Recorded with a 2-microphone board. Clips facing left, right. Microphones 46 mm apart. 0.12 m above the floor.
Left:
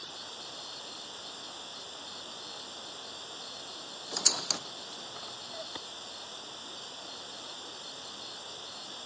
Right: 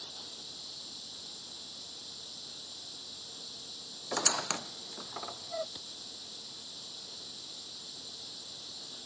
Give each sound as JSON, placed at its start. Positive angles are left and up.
{"t": 0.0, "sound": "running water", "side_deg": 50}
{"t": 4.1, "sound": "a squeak", "side_deg": -30}
{"t": 5.8, "sound": "a clap", "side_deg": 45}